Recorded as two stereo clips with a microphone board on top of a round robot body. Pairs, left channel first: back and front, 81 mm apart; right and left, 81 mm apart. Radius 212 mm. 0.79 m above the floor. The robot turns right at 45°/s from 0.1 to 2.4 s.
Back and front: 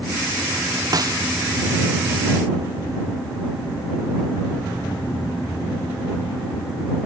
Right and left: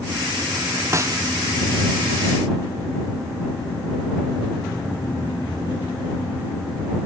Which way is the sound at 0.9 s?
35° left.